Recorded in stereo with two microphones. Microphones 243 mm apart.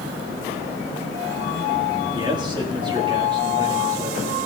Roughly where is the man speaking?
Centre.